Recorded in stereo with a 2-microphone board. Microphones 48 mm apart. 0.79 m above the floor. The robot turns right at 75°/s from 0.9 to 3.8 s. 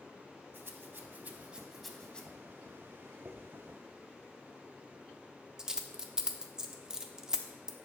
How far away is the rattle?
About 1.0 m.